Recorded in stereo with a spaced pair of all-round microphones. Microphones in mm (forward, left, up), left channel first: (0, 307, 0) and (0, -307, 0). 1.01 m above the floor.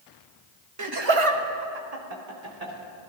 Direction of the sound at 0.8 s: 30° right (ahead or behind).